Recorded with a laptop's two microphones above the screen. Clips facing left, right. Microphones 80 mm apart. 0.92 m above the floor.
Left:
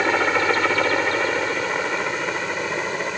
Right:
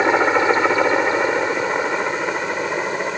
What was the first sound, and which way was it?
A helicopter, 20° right (ahead or behind).